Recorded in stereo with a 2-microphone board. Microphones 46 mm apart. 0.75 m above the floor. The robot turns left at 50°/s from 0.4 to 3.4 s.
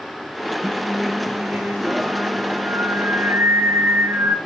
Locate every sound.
0.6 s singing: 15° left, 2.5 m; by 4.4 s 125° right, 2.5 m